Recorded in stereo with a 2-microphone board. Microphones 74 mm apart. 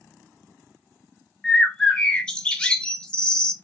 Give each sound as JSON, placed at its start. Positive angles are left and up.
{"t": 1.4, "sound": "a bird", "side_deg": 15, "distance_m": 0.5}